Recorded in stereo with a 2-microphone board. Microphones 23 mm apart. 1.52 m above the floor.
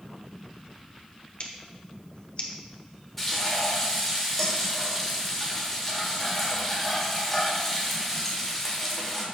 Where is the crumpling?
I don't hear crumpling.